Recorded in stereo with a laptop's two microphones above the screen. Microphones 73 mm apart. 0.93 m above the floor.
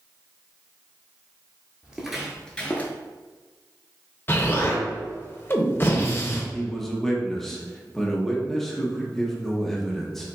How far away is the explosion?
About 0.7 m.